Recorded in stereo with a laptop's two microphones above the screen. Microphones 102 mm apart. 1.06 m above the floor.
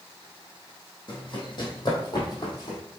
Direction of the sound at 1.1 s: 50° left (ahead or behind).